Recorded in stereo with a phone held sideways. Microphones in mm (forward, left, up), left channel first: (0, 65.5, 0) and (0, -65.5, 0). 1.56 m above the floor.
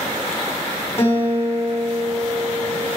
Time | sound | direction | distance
1.0 | a guitar | 20° left (ahead or behind) | 5 m